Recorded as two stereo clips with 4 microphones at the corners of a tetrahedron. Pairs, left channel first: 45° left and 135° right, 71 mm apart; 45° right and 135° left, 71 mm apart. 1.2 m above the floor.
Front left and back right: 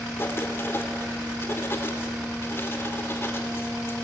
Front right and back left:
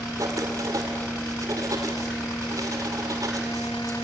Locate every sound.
0.2 s writing: 100° left, 2.5 m